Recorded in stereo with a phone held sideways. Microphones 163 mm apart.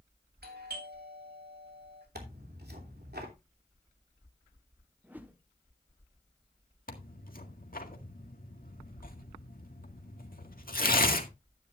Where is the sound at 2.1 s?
75° right (ahead or behind), 2.5 m.